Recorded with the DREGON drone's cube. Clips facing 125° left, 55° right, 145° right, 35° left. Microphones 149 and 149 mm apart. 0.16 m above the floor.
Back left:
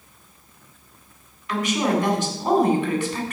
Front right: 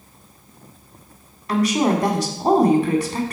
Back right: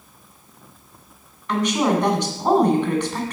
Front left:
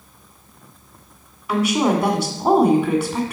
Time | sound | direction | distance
1.5 | a woman speaking | 45° right | 1.5 m